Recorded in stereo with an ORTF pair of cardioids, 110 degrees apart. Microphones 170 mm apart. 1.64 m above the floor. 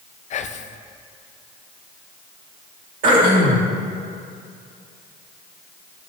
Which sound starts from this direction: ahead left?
Whispering, at 0.3 s.